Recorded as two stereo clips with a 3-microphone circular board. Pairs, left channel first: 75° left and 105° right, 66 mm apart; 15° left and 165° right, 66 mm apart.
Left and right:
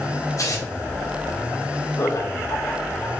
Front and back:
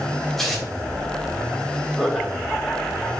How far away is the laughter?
About 3.5 m.